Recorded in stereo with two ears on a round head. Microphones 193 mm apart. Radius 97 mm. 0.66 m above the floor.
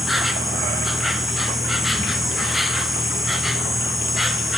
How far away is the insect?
About 0.9 m.